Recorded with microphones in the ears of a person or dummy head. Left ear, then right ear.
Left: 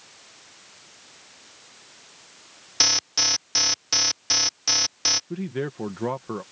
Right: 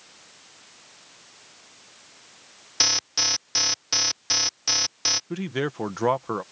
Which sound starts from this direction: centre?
An alarm, at 2.8 s.